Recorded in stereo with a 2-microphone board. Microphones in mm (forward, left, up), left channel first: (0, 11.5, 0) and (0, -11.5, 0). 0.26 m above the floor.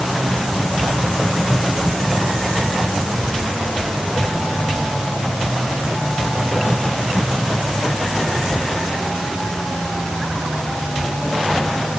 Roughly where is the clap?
I don't hear a clap.